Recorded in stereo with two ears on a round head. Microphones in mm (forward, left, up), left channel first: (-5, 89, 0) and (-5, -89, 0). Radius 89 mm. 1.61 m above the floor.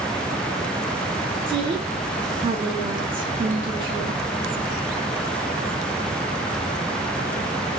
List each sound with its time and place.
1.5 s a woman speaking: 25° right (ahead or behind), 1.2 m